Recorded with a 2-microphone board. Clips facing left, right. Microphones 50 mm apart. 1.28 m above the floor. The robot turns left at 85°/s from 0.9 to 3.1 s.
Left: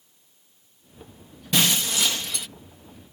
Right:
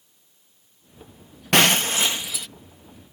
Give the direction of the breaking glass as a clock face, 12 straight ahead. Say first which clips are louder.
Right 5 dB; 4 o'clock.